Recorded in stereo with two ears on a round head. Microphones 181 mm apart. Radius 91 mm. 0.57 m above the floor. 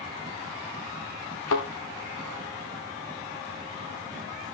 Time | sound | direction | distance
1.5 | a thud | 85° left | 5.5 m